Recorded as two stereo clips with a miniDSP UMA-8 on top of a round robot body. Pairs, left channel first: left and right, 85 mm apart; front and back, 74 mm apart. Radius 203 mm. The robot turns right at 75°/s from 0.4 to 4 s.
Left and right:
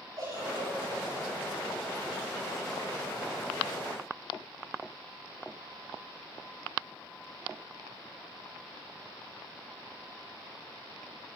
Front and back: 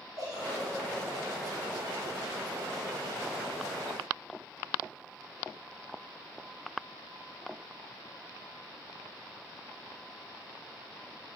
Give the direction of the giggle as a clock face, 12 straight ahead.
5 o'clock.